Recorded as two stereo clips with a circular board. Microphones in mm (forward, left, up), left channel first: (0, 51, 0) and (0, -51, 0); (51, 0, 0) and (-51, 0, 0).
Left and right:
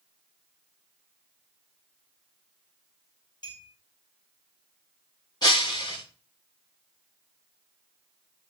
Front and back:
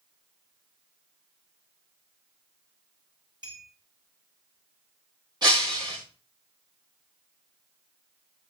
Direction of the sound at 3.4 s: 135° left.